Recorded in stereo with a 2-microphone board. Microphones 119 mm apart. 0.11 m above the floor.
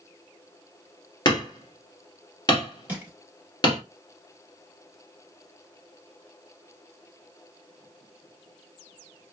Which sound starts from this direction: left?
Hammering, at 1.2 s.